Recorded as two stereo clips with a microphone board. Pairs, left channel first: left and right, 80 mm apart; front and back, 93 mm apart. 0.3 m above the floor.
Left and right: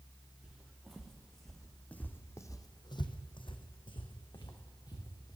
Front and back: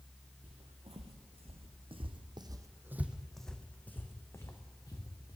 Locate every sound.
0.4 s footsteps: 170° right, 1.7 m; by 5.4 s 55° left, 1.9 m